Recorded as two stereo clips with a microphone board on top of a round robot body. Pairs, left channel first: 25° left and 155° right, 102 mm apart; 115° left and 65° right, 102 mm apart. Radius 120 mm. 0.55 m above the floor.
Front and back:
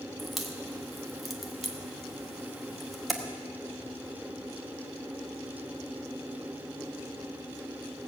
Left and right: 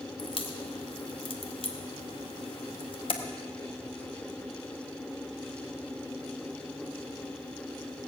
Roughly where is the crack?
Behind left.